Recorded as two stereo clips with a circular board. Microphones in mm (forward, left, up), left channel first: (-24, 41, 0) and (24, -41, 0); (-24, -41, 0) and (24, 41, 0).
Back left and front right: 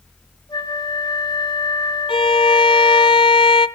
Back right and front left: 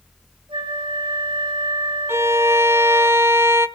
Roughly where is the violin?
Behind left.